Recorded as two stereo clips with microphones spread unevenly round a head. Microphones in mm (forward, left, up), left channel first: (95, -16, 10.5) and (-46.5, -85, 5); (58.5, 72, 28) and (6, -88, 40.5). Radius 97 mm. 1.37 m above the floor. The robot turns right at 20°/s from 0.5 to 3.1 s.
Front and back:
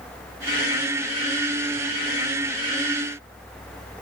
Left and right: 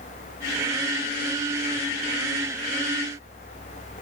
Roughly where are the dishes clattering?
No dishes clattering in this recording.